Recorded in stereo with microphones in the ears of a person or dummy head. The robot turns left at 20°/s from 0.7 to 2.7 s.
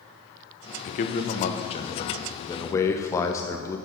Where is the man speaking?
60° left, 0.9 m; by 3.8 s 20° left, 0.9 m.